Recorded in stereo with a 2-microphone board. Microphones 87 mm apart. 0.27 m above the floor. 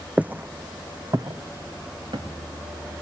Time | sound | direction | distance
0.2 | footsteps | 15° right (ahead or behind) | 0.7 m